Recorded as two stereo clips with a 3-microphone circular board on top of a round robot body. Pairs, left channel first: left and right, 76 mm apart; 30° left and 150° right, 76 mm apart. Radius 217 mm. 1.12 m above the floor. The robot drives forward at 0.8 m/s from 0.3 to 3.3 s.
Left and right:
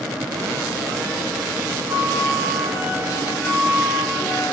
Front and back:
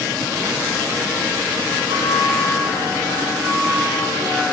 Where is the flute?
150° right, 3 m; by 4.5 s 160° right, 4 m.